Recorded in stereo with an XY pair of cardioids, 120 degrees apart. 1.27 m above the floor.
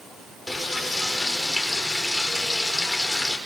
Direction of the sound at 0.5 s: 10° left.